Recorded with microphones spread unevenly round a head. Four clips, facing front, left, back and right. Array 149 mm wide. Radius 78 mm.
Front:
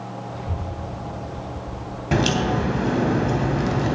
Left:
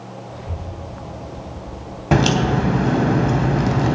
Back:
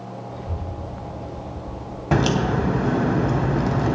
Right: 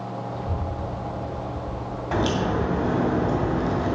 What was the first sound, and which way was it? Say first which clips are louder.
A child speaking: right 3 dB, front 1 dB; 5° left.